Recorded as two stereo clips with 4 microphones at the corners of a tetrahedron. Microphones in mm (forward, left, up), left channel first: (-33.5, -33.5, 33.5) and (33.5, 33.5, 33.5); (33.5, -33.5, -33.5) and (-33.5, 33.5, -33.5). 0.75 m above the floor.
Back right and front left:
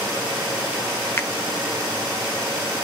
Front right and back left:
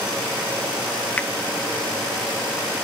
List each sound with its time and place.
1.2 s a finger snap: 105° right, 0.9 m